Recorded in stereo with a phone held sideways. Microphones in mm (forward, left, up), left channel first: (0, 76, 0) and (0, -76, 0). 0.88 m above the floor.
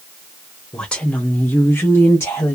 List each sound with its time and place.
0.7 s a woman speaking: 5° left (ahead or behind), 0.8 m; by 2.5 s 15° left (ahead or behind), 1.2 m